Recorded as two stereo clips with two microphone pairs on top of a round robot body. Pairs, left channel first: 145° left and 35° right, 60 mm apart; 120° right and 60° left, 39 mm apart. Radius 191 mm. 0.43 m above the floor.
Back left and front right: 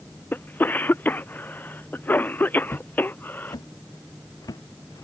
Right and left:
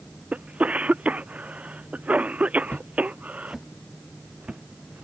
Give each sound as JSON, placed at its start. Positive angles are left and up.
{"t": 0.3, "sound": "a cough", "azimuth_deg": 110}
{"t": 2.7, "sound": "footsteps", "azimuth_deg": -165}